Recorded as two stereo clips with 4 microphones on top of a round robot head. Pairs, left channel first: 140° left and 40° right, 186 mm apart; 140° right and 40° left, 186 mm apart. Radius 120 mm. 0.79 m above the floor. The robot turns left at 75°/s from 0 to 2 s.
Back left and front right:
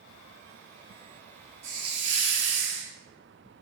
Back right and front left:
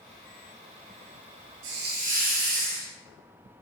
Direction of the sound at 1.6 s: 20° left.